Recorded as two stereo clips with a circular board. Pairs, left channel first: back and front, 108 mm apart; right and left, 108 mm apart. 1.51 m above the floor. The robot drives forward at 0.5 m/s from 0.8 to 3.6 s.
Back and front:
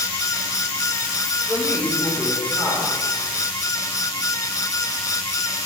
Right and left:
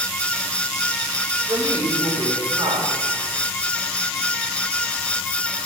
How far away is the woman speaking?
About 5 m.